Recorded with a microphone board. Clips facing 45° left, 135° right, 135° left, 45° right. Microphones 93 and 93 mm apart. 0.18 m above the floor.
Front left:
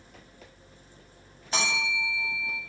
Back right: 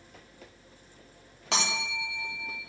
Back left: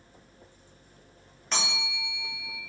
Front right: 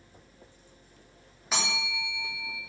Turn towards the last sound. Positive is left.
turn(degrees=-130)